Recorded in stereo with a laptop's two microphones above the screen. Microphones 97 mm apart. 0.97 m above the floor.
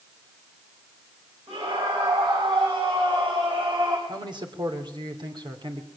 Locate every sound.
1.5 s a scream: 85° right, 7 m; by 4.0 s 65° right (ahead or behind), 4 m
4.1 s a man speaking: 55° right (ahead or behind), 3 m